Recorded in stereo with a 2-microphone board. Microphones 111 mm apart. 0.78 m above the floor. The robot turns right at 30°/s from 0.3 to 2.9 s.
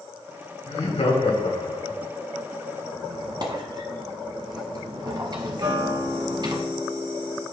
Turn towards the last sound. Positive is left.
turn(degrees=-50)  # may be behind; listen again after turning